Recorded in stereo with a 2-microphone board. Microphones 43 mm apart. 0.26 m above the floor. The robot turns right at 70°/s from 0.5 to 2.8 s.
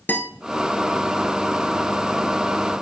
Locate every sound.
0.1 s a guitar: 50° left (ahead or behind), 0.9 m